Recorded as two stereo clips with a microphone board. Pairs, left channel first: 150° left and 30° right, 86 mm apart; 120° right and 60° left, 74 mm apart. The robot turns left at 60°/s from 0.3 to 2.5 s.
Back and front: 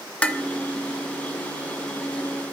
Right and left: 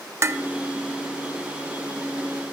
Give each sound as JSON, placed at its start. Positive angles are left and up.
{"t": 0.2, "sound": "dishes clattering", "azimuth_deg": 85, "distance_m": 0.6}